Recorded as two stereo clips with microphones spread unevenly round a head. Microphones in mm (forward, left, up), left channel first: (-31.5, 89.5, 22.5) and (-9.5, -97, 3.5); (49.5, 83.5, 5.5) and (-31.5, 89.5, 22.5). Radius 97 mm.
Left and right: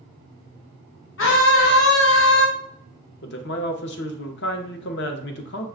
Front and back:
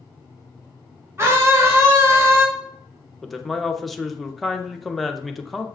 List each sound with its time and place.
1.2 s a scream: 115° left, 1.4 m
3.2 s a man speaking: 75° left, 0.7 m